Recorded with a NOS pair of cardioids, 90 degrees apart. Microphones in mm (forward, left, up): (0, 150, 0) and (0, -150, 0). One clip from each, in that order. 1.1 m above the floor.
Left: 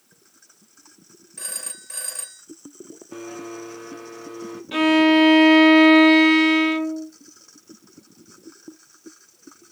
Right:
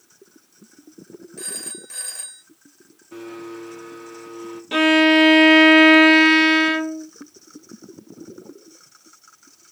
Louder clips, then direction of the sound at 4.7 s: Right 2 dB; 25° right.